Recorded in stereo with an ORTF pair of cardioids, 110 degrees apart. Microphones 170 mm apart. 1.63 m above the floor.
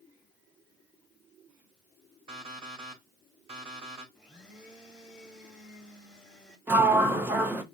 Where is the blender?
5° right, 1.2 m.